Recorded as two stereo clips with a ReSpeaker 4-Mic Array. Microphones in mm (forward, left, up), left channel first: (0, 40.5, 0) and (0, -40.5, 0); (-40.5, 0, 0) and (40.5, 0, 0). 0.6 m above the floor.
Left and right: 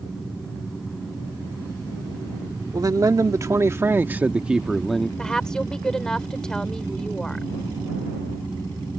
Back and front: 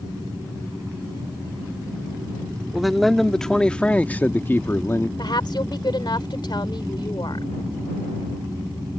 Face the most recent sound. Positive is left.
turn(degrees=170)